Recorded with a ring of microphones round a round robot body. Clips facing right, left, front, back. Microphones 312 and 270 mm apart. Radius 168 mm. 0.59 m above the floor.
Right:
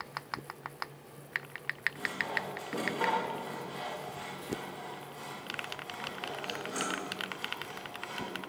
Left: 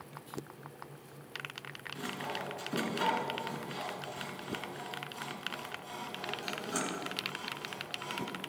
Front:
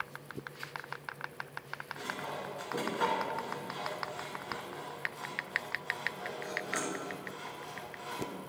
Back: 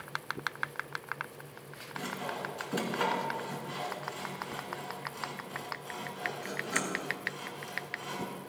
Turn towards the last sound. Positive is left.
turn(degrees=140)